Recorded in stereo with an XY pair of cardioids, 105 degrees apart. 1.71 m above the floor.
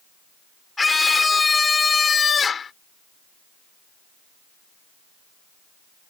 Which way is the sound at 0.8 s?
25° left.